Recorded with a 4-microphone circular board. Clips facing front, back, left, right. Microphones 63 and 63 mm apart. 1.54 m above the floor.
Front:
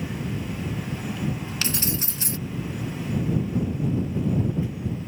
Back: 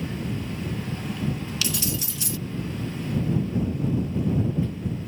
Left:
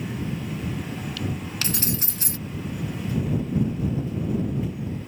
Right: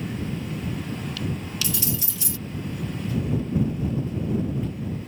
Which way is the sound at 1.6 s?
50° left.